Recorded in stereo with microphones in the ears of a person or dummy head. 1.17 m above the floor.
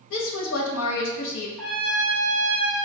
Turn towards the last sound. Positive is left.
turn(degrees=5)  # may be behind; listen again after turning